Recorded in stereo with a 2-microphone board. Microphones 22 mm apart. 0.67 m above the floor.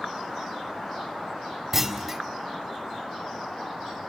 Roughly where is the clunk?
Centre.